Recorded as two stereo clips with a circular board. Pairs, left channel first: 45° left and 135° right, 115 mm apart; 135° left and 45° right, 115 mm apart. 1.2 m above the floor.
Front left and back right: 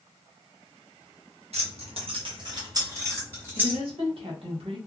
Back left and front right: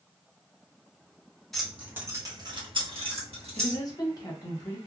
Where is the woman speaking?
170° right, 1.0 m.